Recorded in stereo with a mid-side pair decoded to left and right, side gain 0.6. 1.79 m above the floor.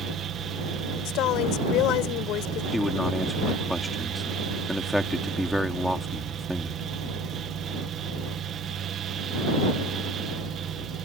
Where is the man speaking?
Straight ahead.